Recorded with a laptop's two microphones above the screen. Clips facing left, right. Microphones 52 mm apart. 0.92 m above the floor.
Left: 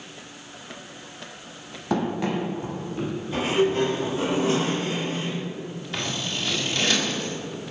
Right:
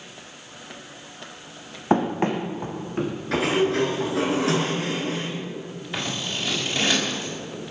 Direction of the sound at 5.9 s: 15° right (ahead or behind).